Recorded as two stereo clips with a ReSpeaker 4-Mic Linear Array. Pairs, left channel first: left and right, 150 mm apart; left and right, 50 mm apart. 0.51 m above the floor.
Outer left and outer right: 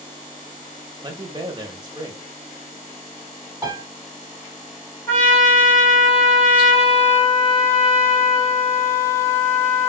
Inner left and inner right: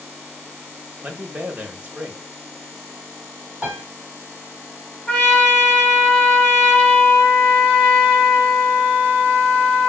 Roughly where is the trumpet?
Centre.